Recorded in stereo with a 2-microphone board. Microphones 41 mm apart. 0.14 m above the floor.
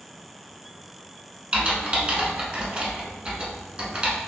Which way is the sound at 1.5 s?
30° right (ahead or behind).